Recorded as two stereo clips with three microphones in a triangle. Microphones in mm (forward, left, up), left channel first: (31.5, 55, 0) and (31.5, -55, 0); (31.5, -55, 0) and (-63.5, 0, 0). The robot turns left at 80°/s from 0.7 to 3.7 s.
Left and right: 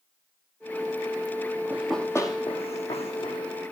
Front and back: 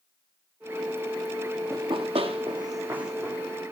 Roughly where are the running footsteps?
Behind.